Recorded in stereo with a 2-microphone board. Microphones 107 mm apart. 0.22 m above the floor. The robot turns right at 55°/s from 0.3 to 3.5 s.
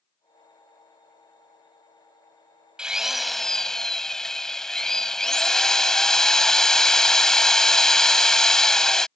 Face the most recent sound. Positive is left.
turn(degrees=5)  # may be behind; listen again after turning